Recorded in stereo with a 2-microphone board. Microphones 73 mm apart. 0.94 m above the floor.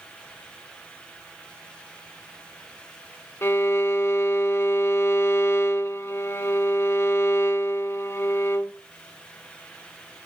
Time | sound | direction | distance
3.4 | a violin | 35° left (ahead or behind) | 0.7 m